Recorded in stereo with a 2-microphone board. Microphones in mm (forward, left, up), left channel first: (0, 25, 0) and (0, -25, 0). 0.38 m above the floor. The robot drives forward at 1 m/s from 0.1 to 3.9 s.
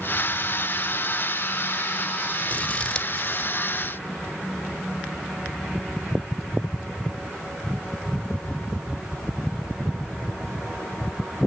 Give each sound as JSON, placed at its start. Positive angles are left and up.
{"t": 2.5, "sound": "scissors", "side_deg": 30, "distance_m": 0.6}